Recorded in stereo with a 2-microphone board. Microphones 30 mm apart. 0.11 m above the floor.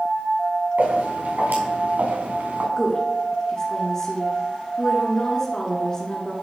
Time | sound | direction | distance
0.8 | footsteps | 90° right | 3.5 m
2.8 | a woman speaking | 25° left (ahead or behind) | 1.3 m